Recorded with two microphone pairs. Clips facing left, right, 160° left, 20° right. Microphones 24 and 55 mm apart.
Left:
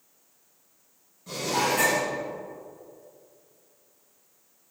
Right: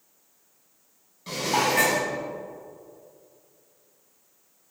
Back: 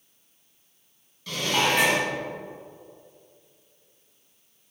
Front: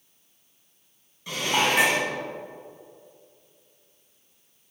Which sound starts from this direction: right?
Dishes clattering, at 1.3 s.